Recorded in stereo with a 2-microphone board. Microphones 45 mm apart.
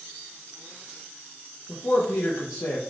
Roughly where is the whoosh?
No whoosh in this recording.